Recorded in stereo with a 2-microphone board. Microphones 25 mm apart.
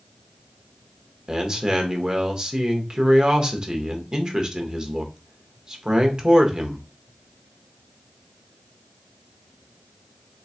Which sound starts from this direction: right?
A man speaking, at 1.3 s.